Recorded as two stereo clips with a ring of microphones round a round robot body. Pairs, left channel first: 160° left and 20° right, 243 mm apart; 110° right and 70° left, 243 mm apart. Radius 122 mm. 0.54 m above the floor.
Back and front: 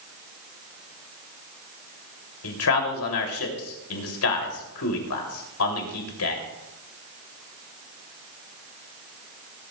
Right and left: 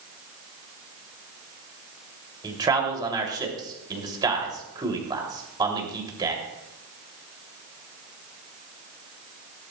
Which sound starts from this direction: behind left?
A man speaking, at 2.4 s.